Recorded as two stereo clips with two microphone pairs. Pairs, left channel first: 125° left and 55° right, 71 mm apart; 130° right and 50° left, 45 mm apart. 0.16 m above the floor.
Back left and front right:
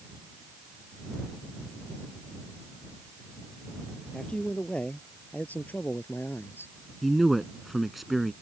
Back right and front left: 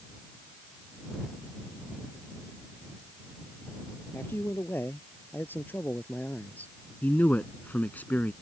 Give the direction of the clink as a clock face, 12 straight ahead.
No clink in this recording.